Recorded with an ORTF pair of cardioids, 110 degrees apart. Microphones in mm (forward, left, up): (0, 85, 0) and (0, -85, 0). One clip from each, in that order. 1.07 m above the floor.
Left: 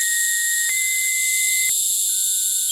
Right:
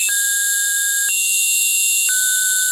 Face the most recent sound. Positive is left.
turn(degrees=0)